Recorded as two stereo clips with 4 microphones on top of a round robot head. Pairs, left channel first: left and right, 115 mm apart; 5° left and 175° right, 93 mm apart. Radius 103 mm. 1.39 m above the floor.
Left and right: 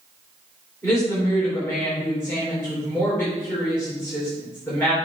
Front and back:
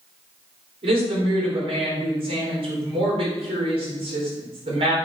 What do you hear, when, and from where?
0.8 s a woman speaking: 165° left, 4 m